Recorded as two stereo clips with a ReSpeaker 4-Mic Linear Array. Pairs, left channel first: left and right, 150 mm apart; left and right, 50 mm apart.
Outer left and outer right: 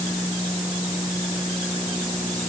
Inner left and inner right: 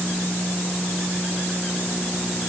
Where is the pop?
I don't hear a pop.